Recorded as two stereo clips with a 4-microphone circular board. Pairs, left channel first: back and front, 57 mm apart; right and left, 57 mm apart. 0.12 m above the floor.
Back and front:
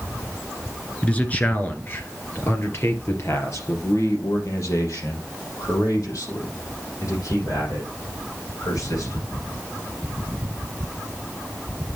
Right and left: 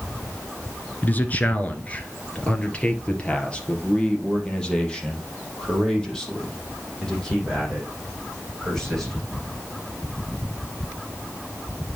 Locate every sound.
1.0 s a man speaking: 130° right, 1.6 m; by 9.5 s 175° right, 6.5 m